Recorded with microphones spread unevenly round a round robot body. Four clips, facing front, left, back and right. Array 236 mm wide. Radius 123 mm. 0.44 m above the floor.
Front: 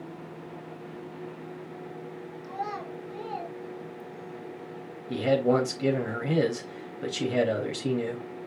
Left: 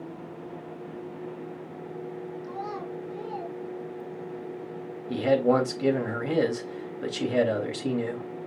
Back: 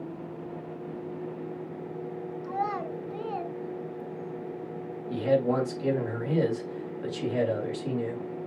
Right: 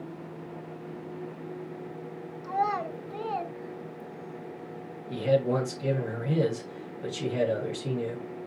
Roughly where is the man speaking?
Ahead left.